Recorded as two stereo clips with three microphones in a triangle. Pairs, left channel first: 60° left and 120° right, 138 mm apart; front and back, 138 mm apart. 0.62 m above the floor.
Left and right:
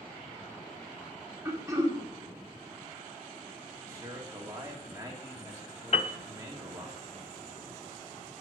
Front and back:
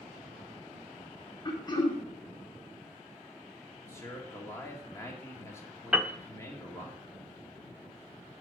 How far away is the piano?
About 0.6 m.